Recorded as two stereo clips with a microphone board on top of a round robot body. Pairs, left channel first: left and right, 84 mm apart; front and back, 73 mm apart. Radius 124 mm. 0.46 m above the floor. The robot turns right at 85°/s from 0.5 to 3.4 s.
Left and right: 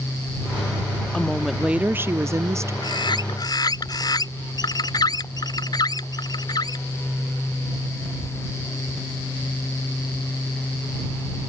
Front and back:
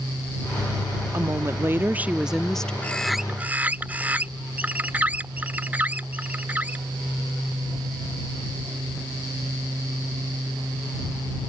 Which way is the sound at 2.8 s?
65° left.